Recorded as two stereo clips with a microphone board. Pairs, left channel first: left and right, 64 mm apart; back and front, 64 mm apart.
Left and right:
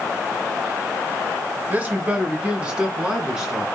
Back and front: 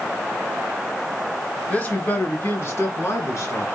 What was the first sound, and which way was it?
A man speaking, 135° right.